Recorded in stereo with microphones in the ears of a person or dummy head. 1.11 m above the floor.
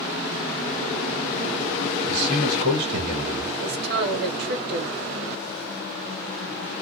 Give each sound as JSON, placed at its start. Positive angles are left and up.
{"t": 2.1, "sound": "a man speaking", "side_deg": -60, "distance_m": 1.4}
{"t": 3.6, "sound": "a woman speaking", "side_deg": -65, "distance_m": 1.3}